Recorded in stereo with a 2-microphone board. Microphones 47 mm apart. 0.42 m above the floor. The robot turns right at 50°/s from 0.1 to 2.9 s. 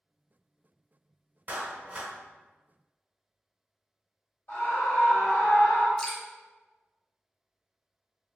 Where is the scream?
45° left (ahead or behind), 1.8 m.